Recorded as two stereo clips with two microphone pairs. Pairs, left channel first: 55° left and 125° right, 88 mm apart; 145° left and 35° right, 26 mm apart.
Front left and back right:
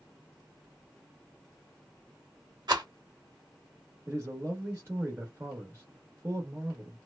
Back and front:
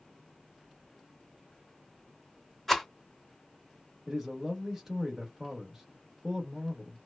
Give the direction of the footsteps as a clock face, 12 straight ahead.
No footsteps in this recording.